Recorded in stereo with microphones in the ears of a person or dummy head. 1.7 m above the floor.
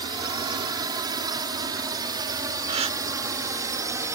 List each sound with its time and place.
0.0 s a drone: 20° right (ahead or behind); by 4.2 s 15° right (ahead or behind)
2.7 s a gasp: 30° right (ahead or behind)